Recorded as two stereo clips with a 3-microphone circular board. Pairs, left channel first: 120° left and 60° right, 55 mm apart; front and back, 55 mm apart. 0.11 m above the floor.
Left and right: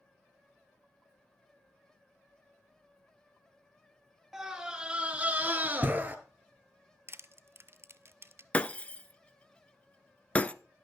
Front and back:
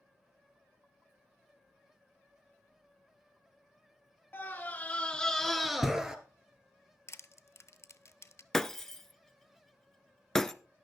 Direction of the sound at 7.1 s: 25° right.